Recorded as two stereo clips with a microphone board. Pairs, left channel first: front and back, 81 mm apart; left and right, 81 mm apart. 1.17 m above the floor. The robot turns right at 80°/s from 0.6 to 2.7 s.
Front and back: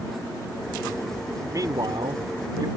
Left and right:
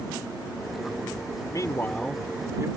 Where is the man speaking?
130° left; by 2.7 s 135° right.